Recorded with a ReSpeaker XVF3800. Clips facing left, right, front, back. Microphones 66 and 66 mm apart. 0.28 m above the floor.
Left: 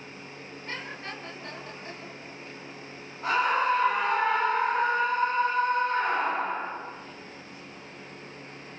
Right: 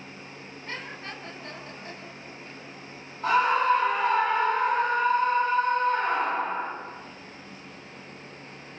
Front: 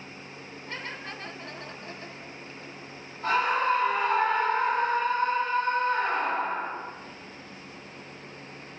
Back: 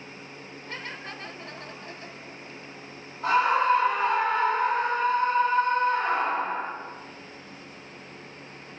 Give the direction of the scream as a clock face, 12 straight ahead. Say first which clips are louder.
Right 3 dB, back 3 dB; 7 o'clock.